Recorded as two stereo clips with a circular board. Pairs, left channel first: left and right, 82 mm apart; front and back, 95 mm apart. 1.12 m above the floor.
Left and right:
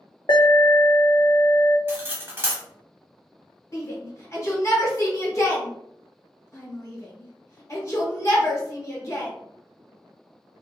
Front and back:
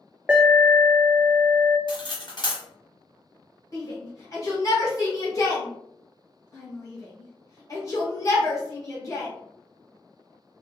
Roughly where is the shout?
Ahead left.